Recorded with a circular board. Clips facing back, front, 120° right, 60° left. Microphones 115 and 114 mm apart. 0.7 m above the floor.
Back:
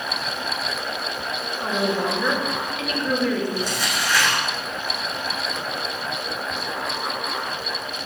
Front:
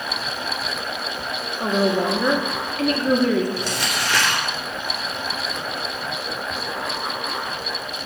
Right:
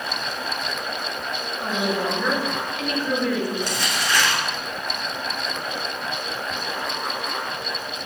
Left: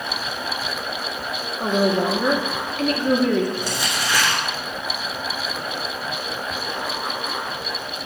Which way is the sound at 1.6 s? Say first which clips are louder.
Front 4 dB, left 6 dB; 35° left.